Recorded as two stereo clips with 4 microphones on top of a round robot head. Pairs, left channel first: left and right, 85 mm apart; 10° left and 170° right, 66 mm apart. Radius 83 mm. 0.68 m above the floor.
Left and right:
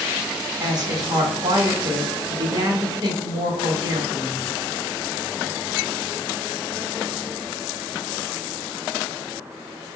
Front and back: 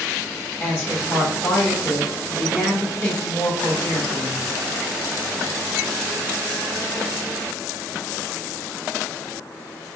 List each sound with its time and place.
0.6 s a woman speaking: 50° right, 1.8 m